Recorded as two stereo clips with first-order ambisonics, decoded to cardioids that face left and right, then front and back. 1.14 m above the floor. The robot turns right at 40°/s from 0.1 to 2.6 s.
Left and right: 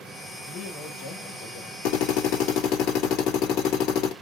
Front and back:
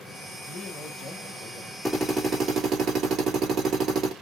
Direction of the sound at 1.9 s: 95° left.